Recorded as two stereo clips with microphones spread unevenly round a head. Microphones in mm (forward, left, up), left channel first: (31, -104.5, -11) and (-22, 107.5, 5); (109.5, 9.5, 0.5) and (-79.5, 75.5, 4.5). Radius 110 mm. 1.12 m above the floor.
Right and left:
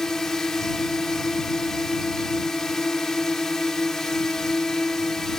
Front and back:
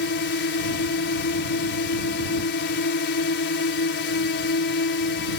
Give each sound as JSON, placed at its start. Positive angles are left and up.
{"t": 0.0, "sound": "a drone", "azimuth_deg": 15}